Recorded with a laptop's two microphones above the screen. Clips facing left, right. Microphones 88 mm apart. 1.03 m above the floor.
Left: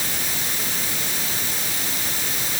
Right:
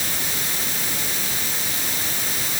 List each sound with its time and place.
Only background noise.